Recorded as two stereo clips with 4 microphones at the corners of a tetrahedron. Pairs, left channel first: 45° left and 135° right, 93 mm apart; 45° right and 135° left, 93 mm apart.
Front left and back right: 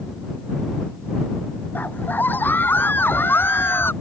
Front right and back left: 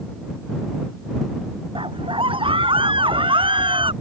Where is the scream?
115° left.